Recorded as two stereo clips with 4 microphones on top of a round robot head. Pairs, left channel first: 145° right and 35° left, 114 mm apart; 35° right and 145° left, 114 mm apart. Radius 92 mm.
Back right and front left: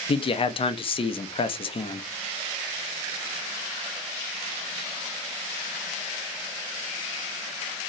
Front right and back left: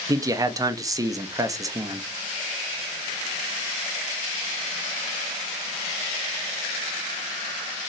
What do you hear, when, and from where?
0.1 s a man speaking: 160° right, 0.5 m